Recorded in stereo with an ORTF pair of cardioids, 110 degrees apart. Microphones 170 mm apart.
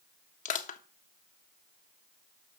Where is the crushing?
45° left, 1.4 m.